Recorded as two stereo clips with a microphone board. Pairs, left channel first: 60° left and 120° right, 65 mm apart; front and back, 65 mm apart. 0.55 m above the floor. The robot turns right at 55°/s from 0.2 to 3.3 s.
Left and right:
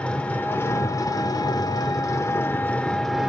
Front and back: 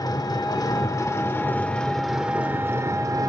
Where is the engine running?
10° right, 0.8 m; by 3.3 s 160° left, 0.8 m.